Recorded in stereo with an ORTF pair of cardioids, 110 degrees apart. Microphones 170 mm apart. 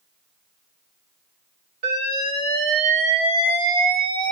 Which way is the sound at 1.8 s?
65° right.